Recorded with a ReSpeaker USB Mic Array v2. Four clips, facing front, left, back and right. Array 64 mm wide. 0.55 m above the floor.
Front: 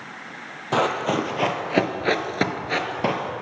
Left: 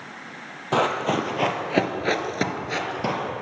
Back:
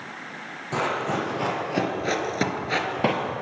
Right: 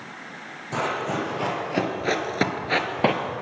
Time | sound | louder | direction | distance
0.7 | running footsteps | left 4 dB, front 4 dB | 55° left | 1.1 m